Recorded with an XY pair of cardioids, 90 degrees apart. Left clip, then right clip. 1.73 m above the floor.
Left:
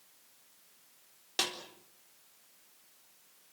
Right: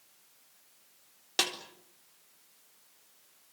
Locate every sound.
1.4 s a snare drum: 35° right, 4 m